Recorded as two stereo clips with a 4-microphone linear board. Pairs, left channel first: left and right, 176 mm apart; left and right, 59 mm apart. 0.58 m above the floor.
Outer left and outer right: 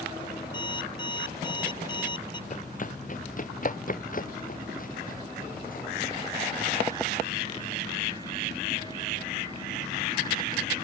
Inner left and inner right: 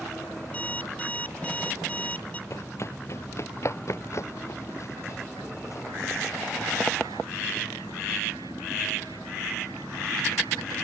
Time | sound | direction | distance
0.5 | an alarm clock | 25° left (ahead or behind) | ?
2.5 | running footsteps | 45° left (ahead or behind) | ?